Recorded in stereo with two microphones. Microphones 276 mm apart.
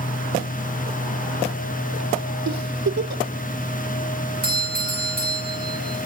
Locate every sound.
2.5 s a giggle: 70° right (ahead or behind), 1.1 m
4.4 s a doorbell: 30° right (ahead or behind), 8 m